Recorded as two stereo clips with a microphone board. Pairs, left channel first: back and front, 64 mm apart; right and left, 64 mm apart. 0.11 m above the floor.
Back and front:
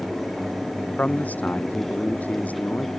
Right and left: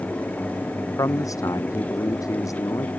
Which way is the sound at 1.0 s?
115° right.